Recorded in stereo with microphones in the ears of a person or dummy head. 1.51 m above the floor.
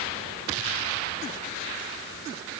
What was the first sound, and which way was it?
Only background noise.